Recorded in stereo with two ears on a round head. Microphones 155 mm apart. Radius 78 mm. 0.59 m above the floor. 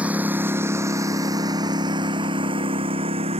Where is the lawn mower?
10° right (ahead or behind); by 3.4 s 35° right (ahead or behind).